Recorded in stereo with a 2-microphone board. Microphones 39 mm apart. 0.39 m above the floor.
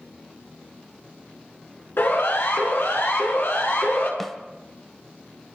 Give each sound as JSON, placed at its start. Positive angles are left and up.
{"t": 2.0, "sound": "a siren", "side_deg": 75, "distance_m": 6.5}
{"t": 4.2, "sound": "a snare drum", "side_deg": 5, "distance_m": 1.6}